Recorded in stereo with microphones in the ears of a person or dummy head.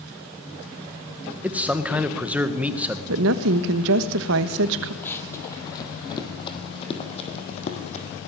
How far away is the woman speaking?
About 1.4 m.